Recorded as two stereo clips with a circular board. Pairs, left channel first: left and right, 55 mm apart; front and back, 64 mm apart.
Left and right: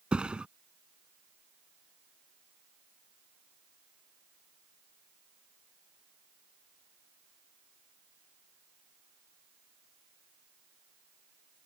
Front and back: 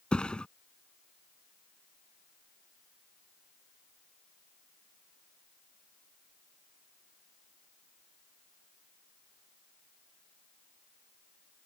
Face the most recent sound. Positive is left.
turn(degrees=-50)